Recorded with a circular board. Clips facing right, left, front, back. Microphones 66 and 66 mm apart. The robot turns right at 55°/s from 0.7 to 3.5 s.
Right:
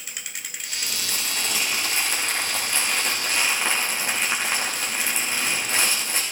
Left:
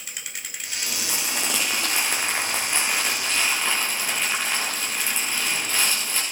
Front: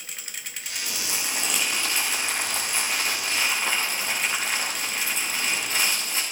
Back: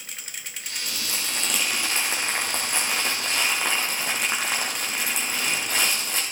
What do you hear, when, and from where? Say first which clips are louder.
0.9 s crumpling: left 2 dB, even; 55° left, 6.5 m; by 6.2 s 160° right, 6.5 m